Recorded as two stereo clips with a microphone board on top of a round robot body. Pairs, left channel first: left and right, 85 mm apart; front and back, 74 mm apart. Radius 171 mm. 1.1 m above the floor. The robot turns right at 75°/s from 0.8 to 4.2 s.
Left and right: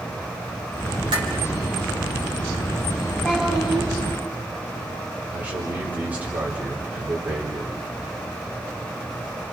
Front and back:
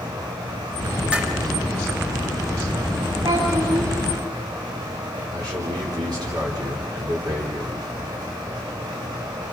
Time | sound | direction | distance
1.1 | dishes clattering | 105° right | 3.5 m
3.2 | a child speaking | 160° left | 7 m
5.3 | a man speaking | 160° right | 3.5 m